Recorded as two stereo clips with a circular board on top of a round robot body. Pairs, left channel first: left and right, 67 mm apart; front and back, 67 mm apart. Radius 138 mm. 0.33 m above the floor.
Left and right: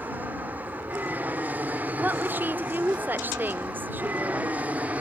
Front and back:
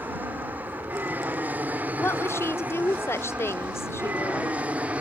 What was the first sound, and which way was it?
An aircraft, 135° right.